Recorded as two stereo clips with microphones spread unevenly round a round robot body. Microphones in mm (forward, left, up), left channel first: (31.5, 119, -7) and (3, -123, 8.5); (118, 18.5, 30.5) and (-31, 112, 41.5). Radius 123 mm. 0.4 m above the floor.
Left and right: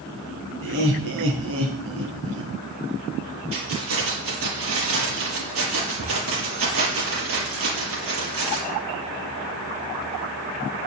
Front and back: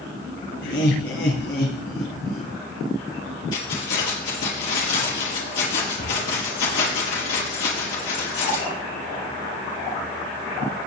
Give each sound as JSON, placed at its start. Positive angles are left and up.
{"t": 0.6, "sound": "laughter", "azimuth_deg": -55, "distance_m": 3.5}
{"t": 3.5, "sound": "keys jangling", "azimuth_deg": -60, "distance_m": 6.5}